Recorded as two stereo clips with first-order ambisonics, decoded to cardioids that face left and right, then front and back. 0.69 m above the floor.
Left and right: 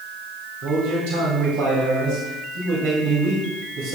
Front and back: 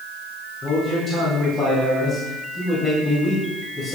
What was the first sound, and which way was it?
A man speaking, 75° right.